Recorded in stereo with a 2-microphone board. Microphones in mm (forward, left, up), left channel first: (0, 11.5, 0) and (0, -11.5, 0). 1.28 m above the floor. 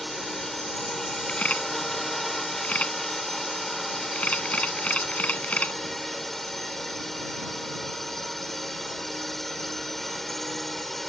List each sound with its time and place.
0.0 s a drone: 5° left (ahead or behind)
1.3 s a camera shutter: 75° left (ahead or behind)